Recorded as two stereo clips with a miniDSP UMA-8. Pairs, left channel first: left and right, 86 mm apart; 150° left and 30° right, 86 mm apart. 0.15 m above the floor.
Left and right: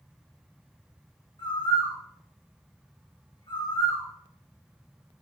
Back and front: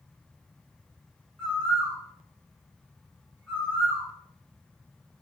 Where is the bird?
70° left, 7.5 m.